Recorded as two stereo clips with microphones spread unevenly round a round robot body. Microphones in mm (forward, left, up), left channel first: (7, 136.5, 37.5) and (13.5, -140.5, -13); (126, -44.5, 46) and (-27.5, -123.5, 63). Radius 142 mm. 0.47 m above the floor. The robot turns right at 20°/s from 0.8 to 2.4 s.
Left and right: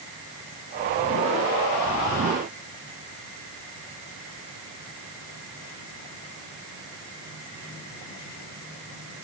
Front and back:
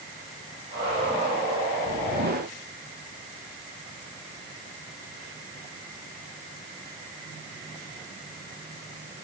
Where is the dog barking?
No dog barking in this recording.